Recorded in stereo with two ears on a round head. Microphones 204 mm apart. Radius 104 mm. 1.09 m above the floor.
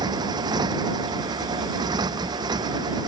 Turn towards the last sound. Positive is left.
turn(degrees=-15)  # may be behind; listen again after turning